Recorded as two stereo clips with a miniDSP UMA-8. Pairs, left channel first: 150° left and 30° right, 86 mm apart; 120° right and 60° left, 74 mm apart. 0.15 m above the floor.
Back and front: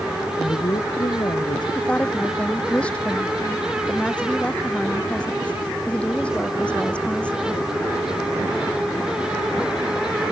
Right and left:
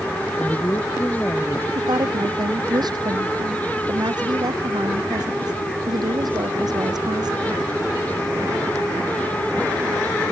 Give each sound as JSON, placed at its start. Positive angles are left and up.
{"t": 0.4, "sound": "a woman speaking", "azimuth_deg": -175}
{"t": 1.8, "sound": "a woman speaking", "azimuth_deg": 75}